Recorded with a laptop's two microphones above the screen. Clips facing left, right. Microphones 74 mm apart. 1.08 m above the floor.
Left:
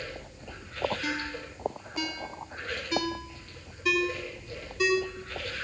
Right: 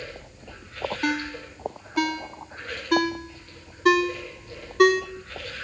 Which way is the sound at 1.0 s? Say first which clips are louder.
Right 6 dB; 60° right (ahead or behind).